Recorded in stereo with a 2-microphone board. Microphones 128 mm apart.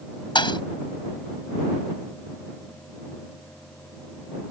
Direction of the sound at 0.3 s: 40° left (ahead or behind).